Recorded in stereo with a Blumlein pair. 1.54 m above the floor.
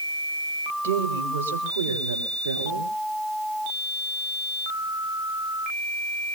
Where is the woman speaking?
65° right, 3 m; by 2.9 s 75° right, 4 m.